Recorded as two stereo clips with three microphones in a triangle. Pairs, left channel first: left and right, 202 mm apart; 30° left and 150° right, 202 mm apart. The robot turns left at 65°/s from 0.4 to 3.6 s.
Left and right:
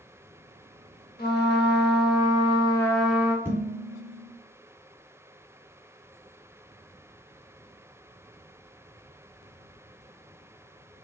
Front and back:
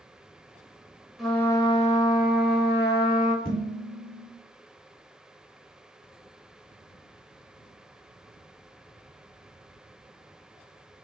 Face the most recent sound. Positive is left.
turn(degrees=-20)